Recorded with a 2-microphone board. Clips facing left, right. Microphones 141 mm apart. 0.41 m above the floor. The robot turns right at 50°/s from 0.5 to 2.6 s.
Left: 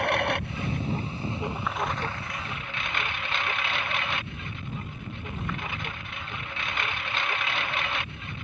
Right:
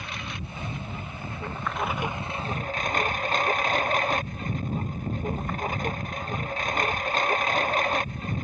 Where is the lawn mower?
115° left; by 8.4 s 140° right.